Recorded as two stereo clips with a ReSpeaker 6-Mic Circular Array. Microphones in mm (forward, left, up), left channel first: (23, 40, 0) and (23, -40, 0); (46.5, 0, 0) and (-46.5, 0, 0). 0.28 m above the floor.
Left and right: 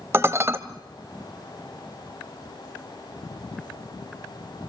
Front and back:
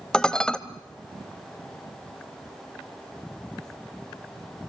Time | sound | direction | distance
0.1 | dishes clattering | 75° right | 0.9 m